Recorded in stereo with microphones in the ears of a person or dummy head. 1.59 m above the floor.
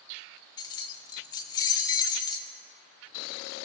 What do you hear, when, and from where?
0.6 s keys jangling: 20° left (ahead or behind), 0.5 m